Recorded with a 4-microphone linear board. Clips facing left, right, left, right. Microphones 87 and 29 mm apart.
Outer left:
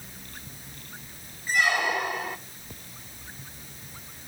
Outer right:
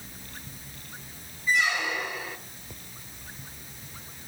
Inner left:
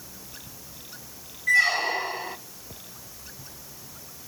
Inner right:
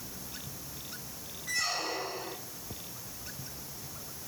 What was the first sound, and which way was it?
A squeak, 55° left (ahead or behind).